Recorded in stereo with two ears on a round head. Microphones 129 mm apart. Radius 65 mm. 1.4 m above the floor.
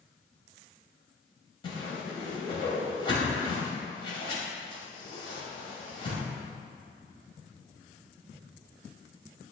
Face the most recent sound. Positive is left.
turn(degrees=35)  # may be behind; listen again after turning